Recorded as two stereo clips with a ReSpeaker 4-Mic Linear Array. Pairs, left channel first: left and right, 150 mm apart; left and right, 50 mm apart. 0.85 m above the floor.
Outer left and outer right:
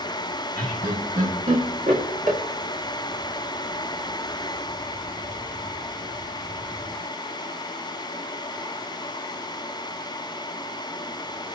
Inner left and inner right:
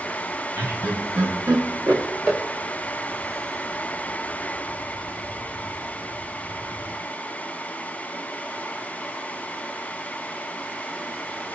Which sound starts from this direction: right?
Laughter, at 0.6 s.